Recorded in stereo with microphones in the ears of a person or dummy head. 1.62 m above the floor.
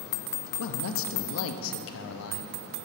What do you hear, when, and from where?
0.6 s a man speaking: 75° left (ahead or behind), 0.7 m